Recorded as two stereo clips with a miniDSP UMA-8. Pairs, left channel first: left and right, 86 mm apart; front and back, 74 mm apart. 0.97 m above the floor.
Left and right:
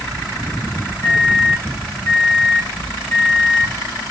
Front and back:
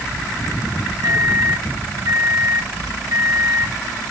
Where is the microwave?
165° left, 3 m.